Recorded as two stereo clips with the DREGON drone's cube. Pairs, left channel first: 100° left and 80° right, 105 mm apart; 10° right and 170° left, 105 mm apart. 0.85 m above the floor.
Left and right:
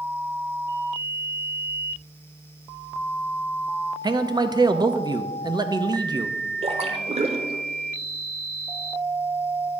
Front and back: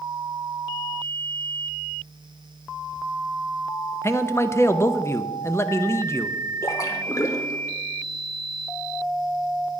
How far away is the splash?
About 1.0 m.